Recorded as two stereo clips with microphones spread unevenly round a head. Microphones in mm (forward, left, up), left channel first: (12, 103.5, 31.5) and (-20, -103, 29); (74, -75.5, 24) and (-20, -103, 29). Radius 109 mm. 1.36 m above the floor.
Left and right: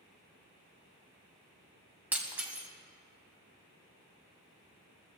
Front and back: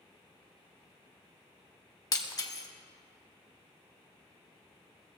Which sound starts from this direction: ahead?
Breaking glass, at 2.1 s.